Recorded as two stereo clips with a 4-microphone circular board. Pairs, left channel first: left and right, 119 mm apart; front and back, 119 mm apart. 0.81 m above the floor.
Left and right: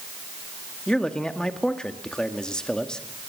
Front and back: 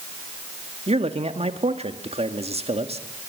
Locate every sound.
0.9 s a man speaking: 175° left, 1.7 m